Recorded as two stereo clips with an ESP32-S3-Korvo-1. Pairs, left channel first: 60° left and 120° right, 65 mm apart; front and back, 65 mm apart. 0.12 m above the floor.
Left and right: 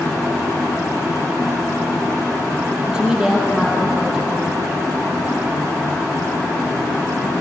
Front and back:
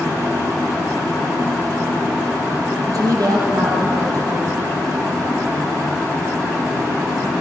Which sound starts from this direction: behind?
A woman speaking, at 2.9 s.